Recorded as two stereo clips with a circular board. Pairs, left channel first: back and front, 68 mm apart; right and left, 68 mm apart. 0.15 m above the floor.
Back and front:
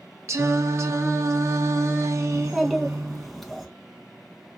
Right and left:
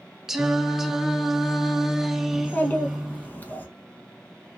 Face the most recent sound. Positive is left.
turn(degrees=-90)